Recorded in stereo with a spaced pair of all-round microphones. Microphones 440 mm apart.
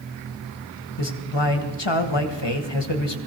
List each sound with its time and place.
1.0 s a man speaking: 65° left (ahead or behind), 1.4 m